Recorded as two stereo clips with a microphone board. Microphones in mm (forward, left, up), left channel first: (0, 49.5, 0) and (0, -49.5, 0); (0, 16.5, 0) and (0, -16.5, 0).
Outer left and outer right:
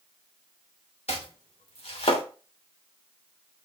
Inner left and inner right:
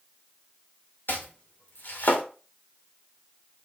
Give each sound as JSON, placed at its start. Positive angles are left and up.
{"t": 1.1, "sound": "chopping", "side_deg": 75, "distance_m": 2.5}